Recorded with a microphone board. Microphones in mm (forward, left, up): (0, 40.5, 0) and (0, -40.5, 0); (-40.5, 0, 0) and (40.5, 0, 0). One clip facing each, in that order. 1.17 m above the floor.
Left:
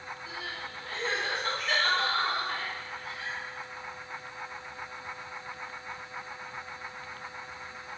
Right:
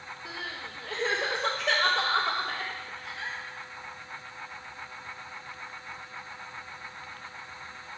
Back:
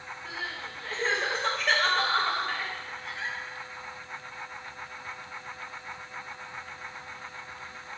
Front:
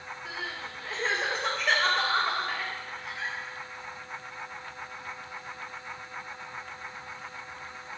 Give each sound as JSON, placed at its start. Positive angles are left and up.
{"t": 0.2, "sound": "crying", "azimuth_deg": -85, "distance_m": 1.1}